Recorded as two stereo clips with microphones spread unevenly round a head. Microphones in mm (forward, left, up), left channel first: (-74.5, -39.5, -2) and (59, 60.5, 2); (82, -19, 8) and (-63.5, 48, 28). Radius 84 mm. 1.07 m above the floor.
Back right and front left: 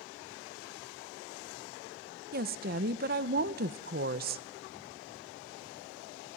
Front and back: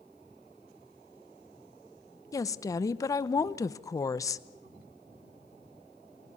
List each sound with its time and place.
2.3 s a woman speaking: 35° left, 0.8 m